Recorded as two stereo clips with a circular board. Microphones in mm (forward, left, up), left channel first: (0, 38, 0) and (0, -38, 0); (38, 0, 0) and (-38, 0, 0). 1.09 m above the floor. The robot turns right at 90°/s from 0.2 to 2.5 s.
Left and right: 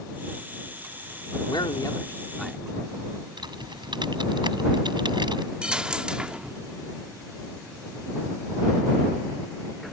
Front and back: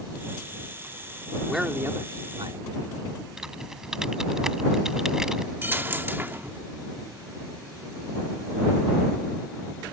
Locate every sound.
1.5 s a man speaking: 90° left; by 2.6 s straight behind
3.4 s typing on a keyboard: 95° right
5.6 s a dropped coin: 155° right